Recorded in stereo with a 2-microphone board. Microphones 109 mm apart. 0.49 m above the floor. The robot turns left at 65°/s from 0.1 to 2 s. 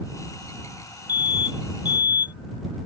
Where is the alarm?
120° left; by 2.3 s 60° left.